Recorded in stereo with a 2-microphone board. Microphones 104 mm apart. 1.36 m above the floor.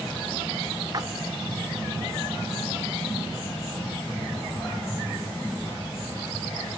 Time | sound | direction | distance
0.9 | a splash | 35° right (ahead or behind) | 1.0 m